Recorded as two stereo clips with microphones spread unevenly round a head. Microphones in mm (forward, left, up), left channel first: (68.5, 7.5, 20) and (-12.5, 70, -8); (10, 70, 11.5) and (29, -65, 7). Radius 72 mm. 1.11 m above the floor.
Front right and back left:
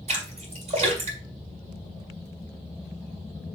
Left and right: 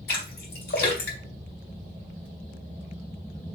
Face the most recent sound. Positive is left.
turn(degrees=120)